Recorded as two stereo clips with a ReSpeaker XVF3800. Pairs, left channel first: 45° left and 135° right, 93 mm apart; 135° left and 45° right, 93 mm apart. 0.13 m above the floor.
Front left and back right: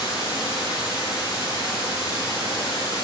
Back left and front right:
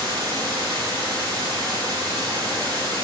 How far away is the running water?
About 3.5 m.